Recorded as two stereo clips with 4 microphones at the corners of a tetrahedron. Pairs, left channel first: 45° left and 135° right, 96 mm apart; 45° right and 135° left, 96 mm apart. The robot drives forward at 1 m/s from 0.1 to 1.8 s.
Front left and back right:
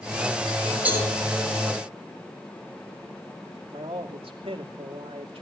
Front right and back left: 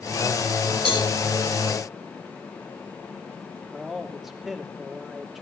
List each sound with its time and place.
0.8 s a cowbell: 60° right, 7 m
3.7 s a man speaking: 135° right, 2.5 m